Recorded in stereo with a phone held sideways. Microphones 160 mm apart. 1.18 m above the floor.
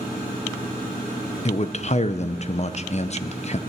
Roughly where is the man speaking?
Left.